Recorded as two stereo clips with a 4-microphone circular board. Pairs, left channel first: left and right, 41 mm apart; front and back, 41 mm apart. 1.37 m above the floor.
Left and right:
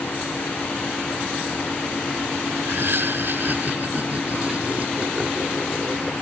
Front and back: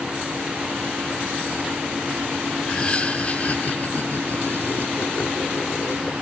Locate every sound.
2.6 s laughter: 65° right; by 6.1 s 10° right